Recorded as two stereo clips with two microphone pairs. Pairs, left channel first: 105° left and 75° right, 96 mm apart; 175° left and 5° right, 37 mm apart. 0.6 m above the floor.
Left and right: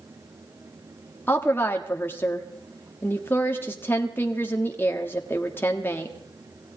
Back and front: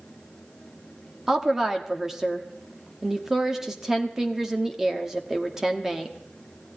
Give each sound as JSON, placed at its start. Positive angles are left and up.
{"t": 1.3, "sound": "a woman speaking", "azimuth_deg": 65, "distance_m": 1.1}